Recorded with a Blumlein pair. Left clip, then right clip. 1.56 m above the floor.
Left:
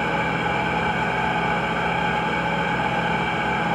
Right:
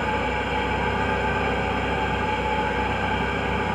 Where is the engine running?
70° left, 0.8 m.